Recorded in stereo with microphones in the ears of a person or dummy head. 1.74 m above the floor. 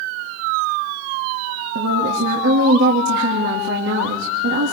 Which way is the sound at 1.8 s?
65° right (ahead or behind).